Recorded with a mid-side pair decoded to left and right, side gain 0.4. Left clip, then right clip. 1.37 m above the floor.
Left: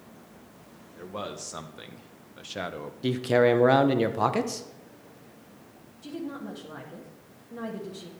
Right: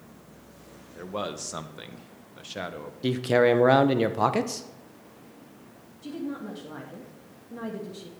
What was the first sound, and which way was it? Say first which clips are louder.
A man speaking: right 3 dB; 35° right.